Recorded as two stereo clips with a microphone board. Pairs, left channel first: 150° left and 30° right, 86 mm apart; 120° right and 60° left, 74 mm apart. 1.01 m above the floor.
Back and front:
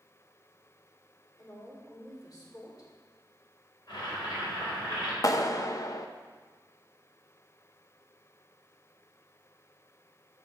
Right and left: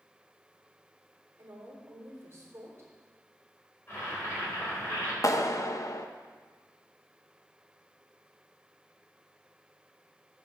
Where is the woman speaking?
115° left, 3.5 m.